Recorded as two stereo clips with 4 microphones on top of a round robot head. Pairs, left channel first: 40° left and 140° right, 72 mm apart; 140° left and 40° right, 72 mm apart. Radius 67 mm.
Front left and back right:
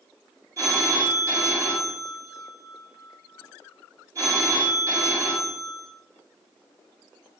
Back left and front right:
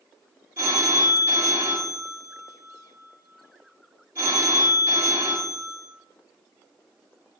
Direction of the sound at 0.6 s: 95° right.